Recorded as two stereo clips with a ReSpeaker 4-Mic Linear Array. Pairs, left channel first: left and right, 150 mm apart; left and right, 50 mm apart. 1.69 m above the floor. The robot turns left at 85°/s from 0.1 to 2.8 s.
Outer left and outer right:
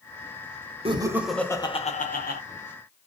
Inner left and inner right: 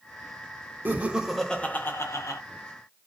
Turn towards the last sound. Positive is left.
turn(degrees=55)